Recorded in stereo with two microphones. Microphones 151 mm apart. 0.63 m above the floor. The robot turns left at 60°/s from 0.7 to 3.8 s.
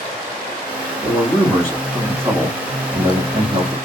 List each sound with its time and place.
1.0 s a man speaking: 40° left, 1.5 m; by 3.8 s 125° right, 1.5 m